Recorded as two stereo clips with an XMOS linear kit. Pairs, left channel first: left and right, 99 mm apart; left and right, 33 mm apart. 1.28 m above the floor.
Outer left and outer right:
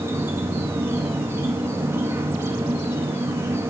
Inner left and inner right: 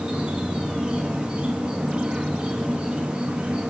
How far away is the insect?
About 0.9 m.